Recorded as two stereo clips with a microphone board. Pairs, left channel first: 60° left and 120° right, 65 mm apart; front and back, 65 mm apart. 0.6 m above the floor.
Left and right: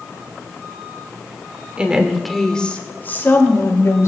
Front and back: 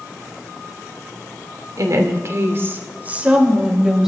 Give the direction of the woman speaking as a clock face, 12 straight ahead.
6 o'clock.